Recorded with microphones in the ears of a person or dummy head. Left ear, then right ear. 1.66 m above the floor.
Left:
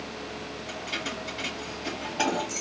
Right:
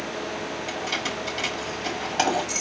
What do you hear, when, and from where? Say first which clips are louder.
0.7 s keys jangling: right 4 dB; 50° right (ahead or behind), 3 m